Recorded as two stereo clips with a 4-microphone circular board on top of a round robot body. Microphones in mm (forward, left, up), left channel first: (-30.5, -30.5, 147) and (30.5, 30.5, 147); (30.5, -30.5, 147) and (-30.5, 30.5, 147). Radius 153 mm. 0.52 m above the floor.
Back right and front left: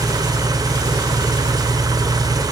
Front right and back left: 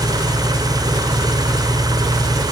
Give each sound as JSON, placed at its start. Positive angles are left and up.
{"t": 0.0, "sound": "an engine running", "azimuth_deg": 90, "distance_m": 1.5}